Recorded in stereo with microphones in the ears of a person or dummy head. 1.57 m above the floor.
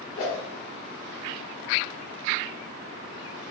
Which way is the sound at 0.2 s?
25° left (ahead or behind).